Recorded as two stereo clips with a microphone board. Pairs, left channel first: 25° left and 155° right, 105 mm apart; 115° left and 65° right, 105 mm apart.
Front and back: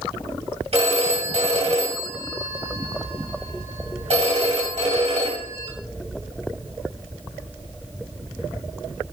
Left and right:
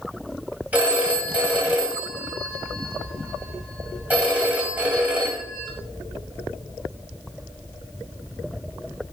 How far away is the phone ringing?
About 2.5 m.